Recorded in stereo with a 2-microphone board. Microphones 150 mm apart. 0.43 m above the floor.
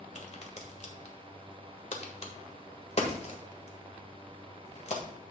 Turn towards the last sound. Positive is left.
turn(degrees=50)  # may be behind; listen again after turning